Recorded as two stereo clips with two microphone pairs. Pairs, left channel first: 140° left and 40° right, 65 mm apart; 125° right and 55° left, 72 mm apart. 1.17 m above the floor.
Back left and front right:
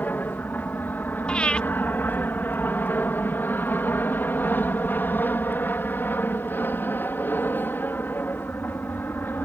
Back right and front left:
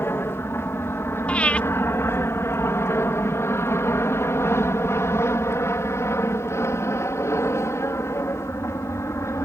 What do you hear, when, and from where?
0.0 s an aircraft: 170° right; by 9.4 s 165° right
1.3 s breathing: 175° right